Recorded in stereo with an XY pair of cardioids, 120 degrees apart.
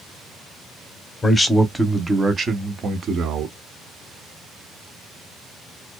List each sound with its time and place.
1.2 s a man speaking: 20° left, 0.7 m; by 3.5 s 55° right, 1.3 m